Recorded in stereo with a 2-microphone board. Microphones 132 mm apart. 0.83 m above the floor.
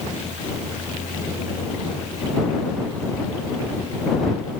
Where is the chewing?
I don't hear chewing.